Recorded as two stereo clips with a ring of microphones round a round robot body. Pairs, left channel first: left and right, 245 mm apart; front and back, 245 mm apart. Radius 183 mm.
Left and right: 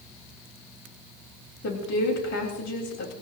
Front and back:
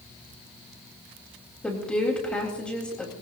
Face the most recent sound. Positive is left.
turn(degrees=85)